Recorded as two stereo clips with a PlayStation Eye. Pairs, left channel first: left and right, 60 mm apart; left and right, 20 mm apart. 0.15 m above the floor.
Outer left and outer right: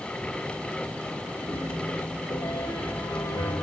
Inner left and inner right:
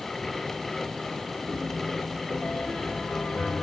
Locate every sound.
1.5 s a piano: 75° left (ahead or behind), 4.5 m